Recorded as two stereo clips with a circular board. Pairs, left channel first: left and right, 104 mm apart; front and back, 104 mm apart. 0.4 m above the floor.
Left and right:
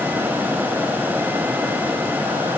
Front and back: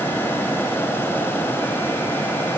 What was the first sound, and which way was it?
Only background noise.